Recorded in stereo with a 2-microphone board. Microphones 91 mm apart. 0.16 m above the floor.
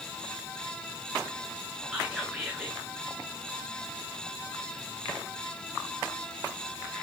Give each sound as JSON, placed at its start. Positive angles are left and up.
{"t": 1.9, "sound": "whispering", "side_deg": -10, "distance_m": 2.0}